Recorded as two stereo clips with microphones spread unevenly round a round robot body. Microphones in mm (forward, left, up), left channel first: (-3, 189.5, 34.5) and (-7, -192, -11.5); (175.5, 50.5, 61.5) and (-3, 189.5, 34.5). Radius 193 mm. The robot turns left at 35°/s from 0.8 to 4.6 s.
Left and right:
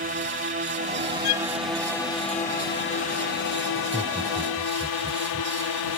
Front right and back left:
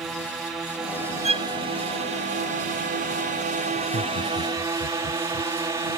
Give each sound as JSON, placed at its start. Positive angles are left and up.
{"t": 0.0, "sound": "a drone", "azimuth_deg": -135}
{"t": 1.2, "sound": "a violin", "azimuth_deg": 80}
{"t": 3.8, "sound": "laughter", "azimuth_deg": 10}